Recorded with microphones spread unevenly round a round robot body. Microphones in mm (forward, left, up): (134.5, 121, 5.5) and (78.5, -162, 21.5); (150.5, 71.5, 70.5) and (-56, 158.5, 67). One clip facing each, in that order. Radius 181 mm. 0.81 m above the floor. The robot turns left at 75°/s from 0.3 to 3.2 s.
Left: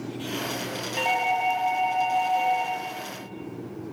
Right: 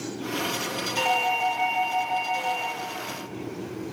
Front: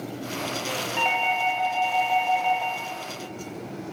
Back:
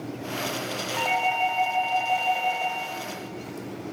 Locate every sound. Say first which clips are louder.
1.0 s a doorbell: even, back 4 dB; 20° right, 0.8 m; by 2.7 s 155° right, 0.8 m